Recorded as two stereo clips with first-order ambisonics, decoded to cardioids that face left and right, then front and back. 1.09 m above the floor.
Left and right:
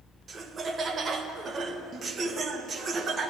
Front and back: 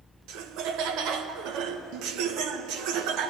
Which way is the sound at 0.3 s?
155° right.